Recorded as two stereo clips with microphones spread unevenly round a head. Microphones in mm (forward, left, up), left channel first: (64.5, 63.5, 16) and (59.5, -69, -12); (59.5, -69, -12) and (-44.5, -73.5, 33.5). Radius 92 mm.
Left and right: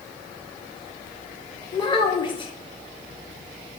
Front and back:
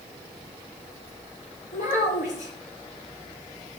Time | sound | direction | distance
1.7 | a child speaking | 40° left | 1.8 m